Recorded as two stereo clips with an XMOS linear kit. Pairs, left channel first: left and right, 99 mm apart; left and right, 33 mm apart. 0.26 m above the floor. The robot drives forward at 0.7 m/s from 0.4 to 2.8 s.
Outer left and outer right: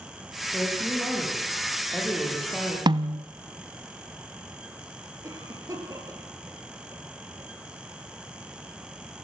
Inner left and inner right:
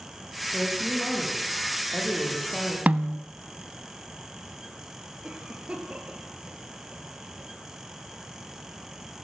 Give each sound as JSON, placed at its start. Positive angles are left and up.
{"t": 0.5, "sound": "a woman speaking", "side_deg": 5, "distance_m": 9.0}
{"t": 2.9, "sound": "a snare drum", "side_deg": -50, "distance_m": 0.8}
{"t": 5.2, "sound": "a cough", "side_deg": -30, "distance_m": 5.0}